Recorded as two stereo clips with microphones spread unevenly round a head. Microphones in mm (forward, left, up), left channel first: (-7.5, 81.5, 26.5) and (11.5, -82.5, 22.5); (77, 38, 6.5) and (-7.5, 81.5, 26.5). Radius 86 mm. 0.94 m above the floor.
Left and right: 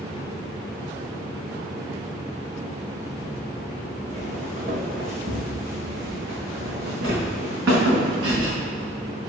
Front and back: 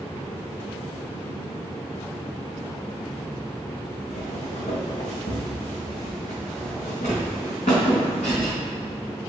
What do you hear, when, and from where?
4.1 s footsteps: 30° right, 3 m; by 8.5 s 85° right, 5.5 m